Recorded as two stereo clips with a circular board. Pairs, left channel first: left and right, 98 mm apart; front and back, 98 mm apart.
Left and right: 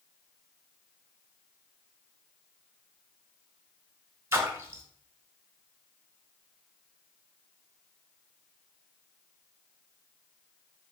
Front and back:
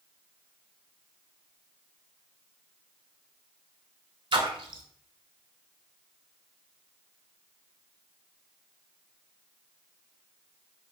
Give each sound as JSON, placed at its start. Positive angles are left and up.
{"t": 4.3, "sound": "a splash", "azimuth_deg": -150, "distance_m": 0.5}